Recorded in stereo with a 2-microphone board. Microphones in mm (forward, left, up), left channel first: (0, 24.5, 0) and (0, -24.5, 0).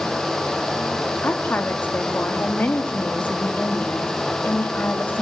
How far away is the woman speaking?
About 2.5 m.